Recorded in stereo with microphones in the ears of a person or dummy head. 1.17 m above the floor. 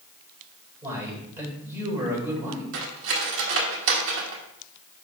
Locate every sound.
0.8 s a man speaking: 15° right (ahead or behind), 4 m
2.7 s cutlery clinking: 70° right (ahead or behind), 1.5 m